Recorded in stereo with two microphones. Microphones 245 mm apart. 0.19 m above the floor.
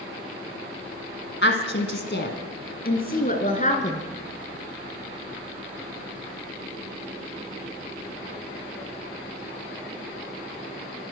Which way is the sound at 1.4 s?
50° left (ahead or behind).